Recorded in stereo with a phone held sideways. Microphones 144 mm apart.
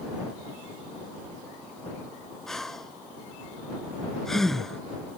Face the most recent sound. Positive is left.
turn(degrees=0)  # may be behind; listen again after turning